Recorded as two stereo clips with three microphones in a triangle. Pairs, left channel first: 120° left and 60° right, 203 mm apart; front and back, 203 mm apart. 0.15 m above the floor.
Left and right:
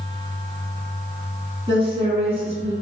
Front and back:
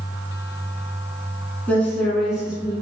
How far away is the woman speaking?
About 1.1 m.